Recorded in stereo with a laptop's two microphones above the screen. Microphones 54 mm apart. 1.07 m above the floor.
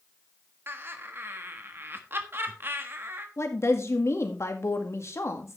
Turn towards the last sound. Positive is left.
turn(degrees=55)  # may be behind; listen again after turning